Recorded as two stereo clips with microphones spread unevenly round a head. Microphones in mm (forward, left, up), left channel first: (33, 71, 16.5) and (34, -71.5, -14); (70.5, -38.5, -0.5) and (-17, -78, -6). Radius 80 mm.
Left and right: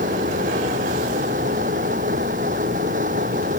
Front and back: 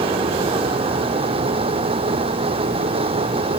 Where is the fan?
135° right.